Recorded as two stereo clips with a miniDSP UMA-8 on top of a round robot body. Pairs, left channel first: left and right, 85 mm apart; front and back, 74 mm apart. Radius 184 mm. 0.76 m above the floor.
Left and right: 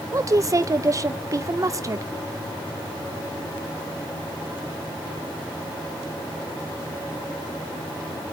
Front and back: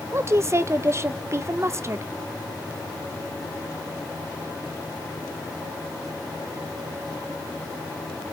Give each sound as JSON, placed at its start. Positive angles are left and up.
{"t": 0.1, "sound": "a woman speaking", "azimuth_deg": -135, "distance_m": 0.8}